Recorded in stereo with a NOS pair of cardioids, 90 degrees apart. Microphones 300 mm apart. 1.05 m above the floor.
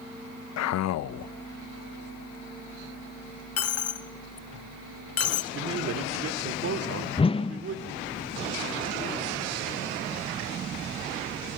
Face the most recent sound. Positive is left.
turn(degrees=20)